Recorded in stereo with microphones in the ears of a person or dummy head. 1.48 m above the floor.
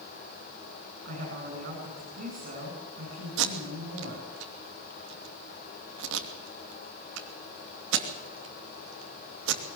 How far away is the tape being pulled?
About 2.5 m.